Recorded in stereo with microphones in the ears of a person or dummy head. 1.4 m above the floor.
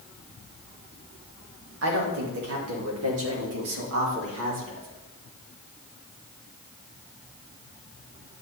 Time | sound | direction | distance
1.8 | a woman speaking | 70° right (ahead or behind) | 2.5 m